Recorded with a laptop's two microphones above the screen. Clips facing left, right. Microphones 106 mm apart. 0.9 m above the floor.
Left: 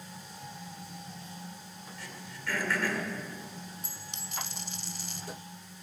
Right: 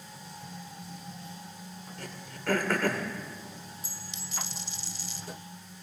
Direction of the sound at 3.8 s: 60° left (ahead or behind).